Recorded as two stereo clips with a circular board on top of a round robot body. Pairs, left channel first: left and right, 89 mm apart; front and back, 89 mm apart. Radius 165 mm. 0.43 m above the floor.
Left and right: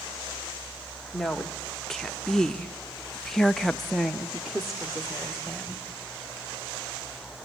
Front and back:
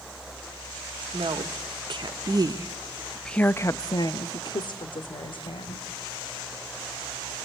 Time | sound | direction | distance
1.1 | a woman speaking | 175° left | 1.9 m